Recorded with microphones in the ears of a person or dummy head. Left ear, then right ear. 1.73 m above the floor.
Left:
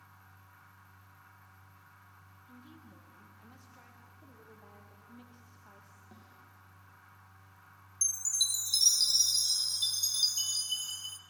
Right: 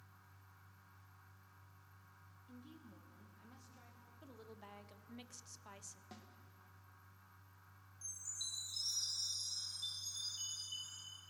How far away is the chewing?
I don't hear chewing.